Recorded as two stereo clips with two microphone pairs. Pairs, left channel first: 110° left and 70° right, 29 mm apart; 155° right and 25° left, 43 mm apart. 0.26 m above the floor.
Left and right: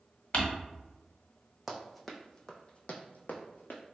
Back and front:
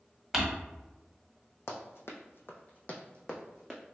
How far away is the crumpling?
About 1.2 m.